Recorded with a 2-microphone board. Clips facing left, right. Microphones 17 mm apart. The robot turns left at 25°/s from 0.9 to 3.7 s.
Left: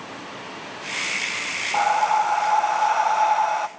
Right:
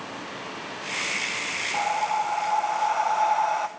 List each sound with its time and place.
1.7 s breathing: 60° left, 0.6 m; by 3.7 s 15° left, 0.6 m